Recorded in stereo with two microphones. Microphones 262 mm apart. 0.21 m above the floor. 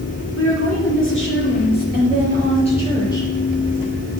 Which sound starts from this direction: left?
A woman speaking, at 0.3 s.